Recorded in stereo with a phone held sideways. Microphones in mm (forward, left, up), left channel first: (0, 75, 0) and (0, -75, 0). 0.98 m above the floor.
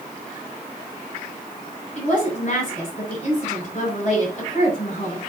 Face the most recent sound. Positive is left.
turn(degrees=50)  # may be behind; listen again after turning